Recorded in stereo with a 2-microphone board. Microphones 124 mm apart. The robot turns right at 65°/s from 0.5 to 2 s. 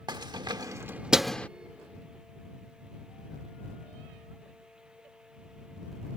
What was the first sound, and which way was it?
Keys jangling, 35° right (ahead or behind).